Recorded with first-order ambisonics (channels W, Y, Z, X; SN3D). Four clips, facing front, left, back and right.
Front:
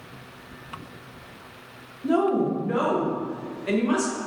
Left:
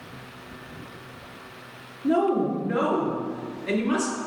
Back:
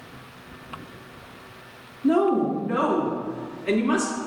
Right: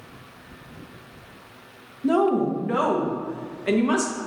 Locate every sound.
2.0 s a woman speaking: 90° right, 1.1 m